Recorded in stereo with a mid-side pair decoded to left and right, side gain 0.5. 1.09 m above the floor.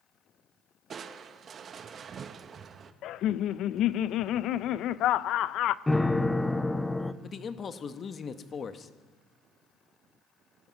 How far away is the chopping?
No chopping in this recording.